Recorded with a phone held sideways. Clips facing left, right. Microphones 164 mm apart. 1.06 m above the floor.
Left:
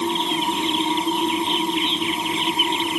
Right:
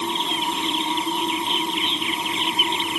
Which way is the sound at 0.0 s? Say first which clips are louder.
Left 4 dB; 20° left (ahead or behind).